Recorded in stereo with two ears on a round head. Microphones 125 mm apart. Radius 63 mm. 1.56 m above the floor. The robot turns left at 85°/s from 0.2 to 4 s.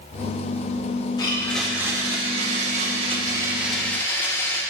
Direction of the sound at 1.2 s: 40° left.